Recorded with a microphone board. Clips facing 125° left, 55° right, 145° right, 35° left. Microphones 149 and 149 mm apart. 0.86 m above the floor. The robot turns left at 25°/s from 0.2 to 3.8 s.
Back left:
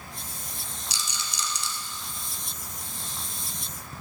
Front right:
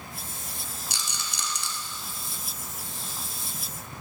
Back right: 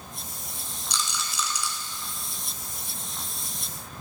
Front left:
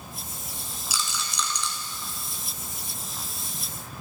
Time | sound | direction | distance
0.9 | a rattle | 50° right | 1.7 m